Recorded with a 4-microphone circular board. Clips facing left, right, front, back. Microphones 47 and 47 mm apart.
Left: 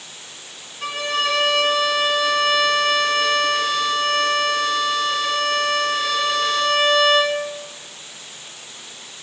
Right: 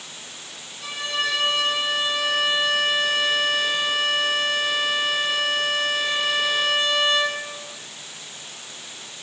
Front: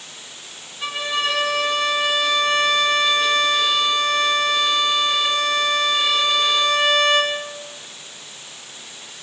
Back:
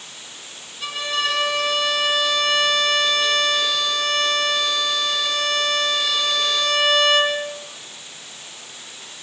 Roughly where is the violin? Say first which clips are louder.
Left 4 dB, front 1 dB; ahead left.